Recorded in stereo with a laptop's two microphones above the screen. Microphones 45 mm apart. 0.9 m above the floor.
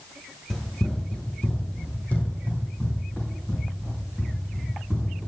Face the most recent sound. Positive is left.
turn(degrees=50)  # may be behind; listen again after turning